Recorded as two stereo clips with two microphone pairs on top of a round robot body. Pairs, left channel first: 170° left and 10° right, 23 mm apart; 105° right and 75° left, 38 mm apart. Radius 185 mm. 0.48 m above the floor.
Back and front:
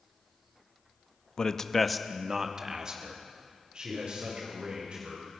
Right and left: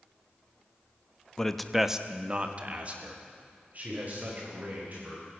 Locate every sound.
1.4 s a man speaking: 165° left, 1.4 m; by 5.2 s 30° left, 5.5 m